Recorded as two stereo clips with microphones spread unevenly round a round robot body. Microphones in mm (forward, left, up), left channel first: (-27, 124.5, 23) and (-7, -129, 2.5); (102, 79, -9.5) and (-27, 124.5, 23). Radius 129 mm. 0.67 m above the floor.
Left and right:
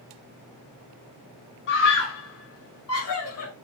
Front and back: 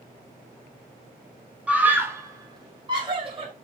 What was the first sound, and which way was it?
A scream, 70° left.